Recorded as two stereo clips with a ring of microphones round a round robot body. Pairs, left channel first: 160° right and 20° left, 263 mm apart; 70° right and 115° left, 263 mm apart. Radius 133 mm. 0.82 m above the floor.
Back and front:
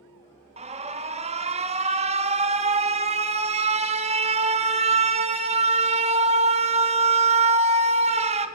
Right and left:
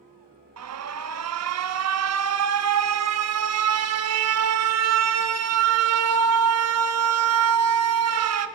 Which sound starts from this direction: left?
An alarm, at 0.6 s.